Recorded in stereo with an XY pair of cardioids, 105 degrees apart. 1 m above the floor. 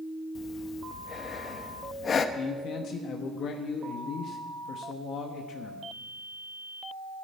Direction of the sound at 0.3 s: 50° left.